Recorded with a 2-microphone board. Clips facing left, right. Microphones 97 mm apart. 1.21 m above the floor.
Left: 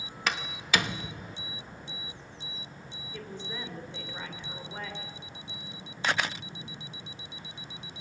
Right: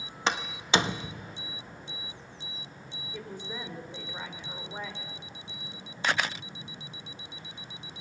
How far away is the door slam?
About 1.0 m.